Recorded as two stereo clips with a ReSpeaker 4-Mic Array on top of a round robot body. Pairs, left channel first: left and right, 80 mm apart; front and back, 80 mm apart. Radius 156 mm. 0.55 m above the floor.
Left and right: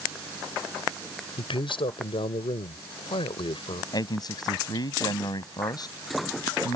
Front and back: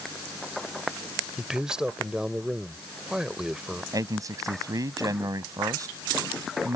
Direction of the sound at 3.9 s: 130° left.